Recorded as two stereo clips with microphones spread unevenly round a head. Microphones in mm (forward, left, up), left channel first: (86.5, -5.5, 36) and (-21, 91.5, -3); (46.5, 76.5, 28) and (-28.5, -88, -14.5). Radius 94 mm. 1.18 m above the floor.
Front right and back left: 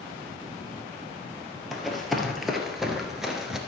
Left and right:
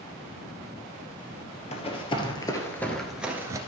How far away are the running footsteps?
About 1.7 m.